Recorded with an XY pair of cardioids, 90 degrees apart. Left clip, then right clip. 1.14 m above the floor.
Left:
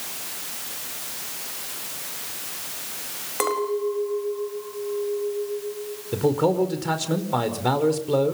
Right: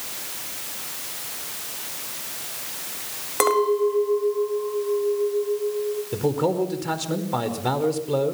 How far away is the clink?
About 4.5 m.